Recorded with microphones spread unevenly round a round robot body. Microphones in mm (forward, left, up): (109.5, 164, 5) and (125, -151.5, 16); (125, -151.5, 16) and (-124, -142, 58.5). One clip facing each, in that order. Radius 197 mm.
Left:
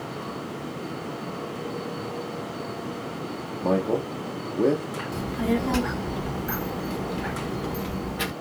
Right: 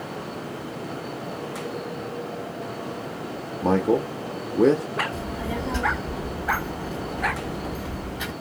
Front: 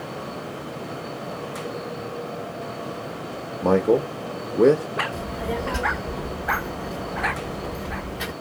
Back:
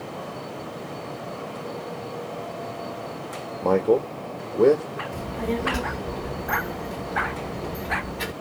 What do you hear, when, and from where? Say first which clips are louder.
3.6 s a man speaking: right 3 dB, front 1 dB; 50° right, 0.6 m
5.1 s a child speaking: left 5 dB, back 4 dB; 115° left, 1.2 m